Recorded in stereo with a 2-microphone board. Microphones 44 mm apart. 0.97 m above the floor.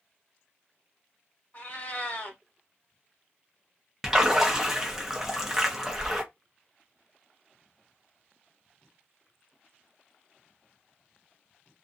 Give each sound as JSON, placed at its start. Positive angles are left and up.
{"t": 1.5, "sound": "a cat meowing", "side_deg": 40, "distance_m": 1.2}
{"t": 4.0, "sound": "a splash", "side_deg": -10, "distance_m": 0.8}